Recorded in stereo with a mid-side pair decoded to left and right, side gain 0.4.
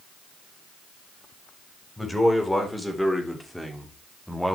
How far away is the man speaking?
About 4.5 m.